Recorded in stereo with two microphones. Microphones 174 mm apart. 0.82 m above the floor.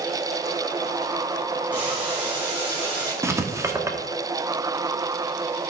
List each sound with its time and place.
1.7 s boiling: 10° right (ahead or behind), 4.5 m
3.2 s writing: 15° right (ahead or behind), 1.0 m